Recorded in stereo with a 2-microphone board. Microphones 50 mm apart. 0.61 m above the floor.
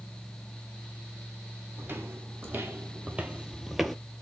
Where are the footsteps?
45° right (ahead or behind), 1.5 m; by 4.0 s 5° left (ahead or behind), 0.6 m.